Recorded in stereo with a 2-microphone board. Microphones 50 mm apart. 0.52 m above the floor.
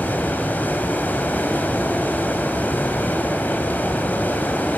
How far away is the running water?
About 3 m.